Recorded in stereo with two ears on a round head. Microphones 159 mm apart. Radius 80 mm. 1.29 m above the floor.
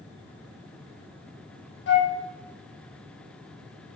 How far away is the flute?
About 1.2 m.